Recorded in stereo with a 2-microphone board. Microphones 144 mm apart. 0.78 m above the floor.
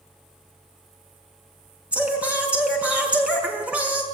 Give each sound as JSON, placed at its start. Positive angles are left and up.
{"t": 1.9, "sound": "singing", "side_deg": -10, "distance_m": 5.5}